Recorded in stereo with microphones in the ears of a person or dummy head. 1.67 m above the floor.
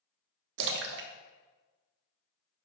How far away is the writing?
No writing in this recording.